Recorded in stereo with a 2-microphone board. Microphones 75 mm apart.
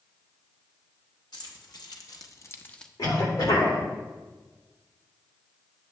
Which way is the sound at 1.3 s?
75° left (ahead or behind).